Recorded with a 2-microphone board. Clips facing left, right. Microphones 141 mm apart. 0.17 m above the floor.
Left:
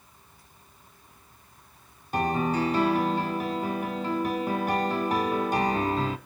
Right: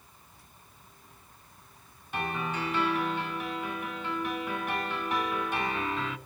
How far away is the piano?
About 0.7 m.